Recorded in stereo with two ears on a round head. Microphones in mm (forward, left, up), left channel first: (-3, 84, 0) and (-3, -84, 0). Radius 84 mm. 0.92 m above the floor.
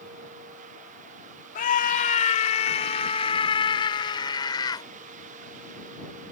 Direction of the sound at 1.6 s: 45° left (ahead or behind).